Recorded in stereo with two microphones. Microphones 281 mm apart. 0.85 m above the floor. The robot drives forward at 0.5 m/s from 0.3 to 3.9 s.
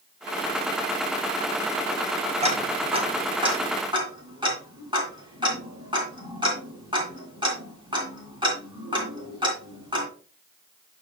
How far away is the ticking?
About 1.7 m.